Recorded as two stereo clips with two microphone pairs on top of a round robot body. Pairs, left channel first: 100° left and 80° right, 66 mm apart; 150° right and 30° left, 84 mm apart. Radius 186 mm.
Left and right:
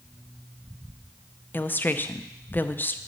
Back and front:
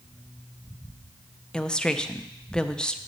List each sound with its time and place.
1.5 s a woman speaking: 145° left, 0.7 m